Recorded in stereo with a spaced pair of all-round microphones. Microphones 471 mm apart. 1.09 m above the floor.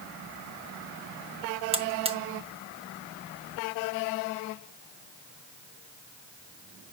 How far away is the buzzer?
About 0.6 m.